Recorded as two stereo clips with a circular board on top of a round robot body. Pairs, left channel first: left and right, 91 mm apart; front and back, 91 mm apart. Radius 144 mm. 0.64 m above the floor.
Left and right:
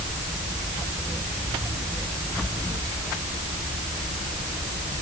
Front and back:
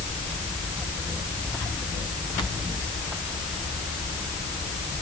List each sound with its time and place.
Only background noise.